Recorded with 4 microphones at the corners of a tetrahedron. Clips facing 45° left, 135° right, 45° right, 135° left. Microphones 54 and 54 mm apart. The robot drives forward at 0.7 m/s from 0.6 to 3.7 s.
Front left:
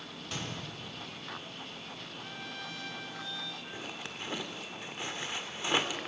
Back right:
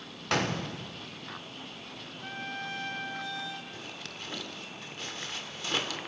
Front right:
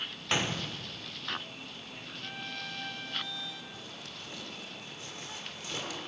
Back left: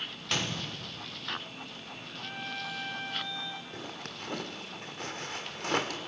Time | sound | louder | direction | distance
0.3 | a gunshot | back right 11 dB, front right 2 dB | 115° right | 0.8 m
2.2 | a trumpet | back right 7 dB, back left 3 dB | 145° right | 1.3 m
3.7 | a zipper | front left 1 dB, back left 4 dB | 115° left | 1.9 m